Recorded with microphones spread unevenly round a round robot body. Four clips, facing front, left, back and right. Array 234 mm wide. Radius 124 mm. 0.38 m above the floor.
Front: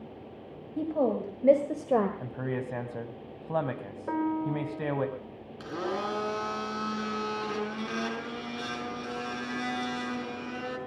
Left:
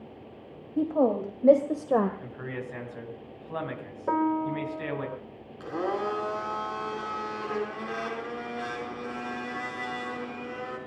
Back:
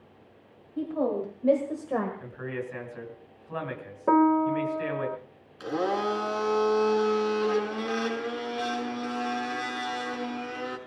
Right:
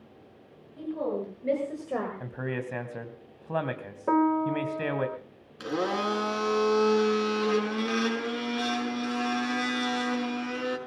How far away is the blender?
About 5.5 m.